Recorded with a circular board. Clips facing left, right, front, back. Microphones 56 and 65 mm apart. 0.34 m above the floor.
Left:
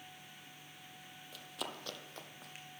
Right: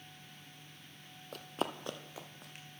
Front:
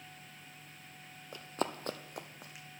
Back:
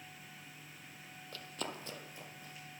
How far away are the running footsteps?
About 0.5 m.